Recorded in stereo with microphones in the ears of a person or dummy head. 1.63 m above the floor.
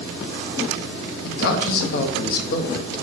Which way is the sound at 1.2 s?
55° left (ahead or behind).